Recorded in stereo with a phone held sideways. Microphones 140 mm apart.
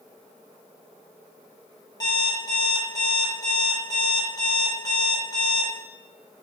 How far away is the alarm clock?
About 2.5 m.